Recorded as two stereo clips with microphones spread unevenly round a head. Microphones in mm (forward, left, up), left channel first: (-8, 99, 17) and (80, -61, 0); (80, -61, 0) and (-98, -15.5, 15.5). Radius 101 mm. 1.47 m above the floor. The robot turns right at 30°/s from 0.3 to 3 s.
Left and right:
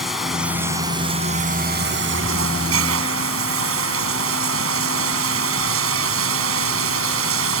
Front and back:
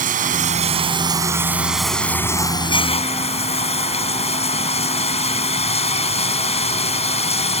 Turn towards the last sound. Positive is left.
turn(degrees=-70)